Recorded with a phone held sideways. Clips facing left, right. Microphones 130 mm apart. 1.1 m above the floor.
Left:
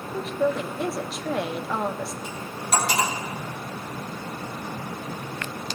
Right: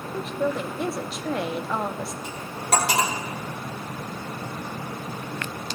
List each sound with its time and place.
0.1 s a woman speaking: centre (ahead or behind), 0.7 m
2.2 s cutlery clinking: 85° right, 3 m